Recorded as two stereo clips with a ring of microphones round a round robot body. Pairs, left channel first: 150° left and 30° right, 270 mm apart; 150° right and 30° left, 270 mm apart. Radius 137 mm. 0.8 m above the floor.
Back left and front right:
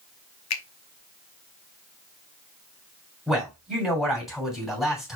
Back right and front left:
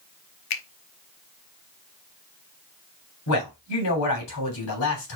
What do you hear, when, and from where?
0.5 s a finger snap: 175° right, 0.8 m
3.3 s a man speaking: 120° right, 3 m